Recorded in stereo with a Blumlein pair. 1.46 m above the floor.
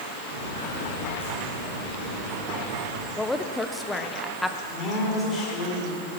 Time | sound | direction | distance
0.3 | footsteps | 60° right | 5.5 m
3.2 | a woman speaking | 5° left | 1.1 m
4.7 | a woman speaking | 25° left | 5 m